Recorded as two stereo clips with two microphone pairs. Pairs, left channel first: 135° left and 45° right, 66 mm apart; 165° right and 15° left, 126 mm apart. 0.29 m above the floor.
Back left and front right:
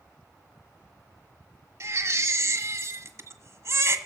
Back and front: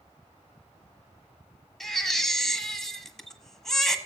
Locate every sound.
1.8 s a baby crying: 80° right, 1.6 m